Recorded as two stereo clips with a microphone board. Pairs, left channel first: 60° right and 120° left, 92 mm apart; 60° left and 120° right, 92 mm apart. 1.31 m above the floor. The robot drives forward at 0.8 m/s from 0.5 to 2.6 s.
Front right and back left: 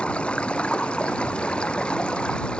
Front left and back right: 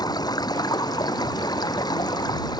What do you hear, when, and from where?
0.0 s running water: 20° left